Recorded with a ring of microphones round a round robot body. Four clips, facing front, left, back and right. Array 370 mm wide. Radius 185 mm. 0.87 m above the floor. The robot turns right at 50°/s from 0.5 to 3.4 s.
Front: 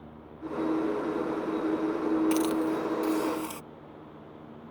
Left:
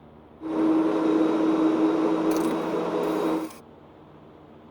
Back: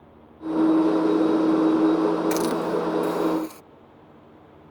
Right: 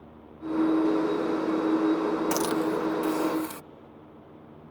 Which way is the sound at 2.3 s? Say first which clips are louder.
Left 2 dB, back 3 dB; 105° right.